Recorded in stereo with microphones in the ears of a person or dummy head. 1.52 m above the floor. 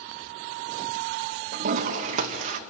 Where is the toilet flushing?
45° right (ahead or behind), 1.1 m.